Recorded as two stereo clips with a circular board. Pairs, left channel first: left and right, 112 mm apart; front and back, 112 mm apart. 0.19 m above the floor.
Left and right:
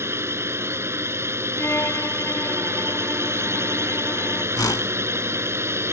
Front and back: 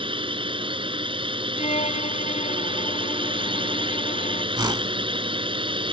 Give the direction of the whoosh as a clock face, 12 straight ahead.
7 o'clock.